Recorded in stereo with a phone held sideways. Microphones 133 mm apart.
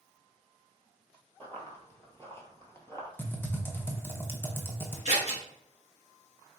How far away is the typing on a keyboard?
About 0.8 m.